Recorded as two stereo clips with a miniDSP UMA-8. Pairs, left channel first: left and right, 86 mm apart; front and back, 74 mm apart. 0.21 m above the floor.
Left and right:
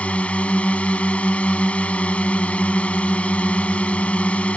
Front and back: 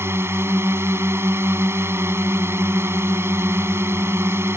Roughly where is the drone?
Behind left.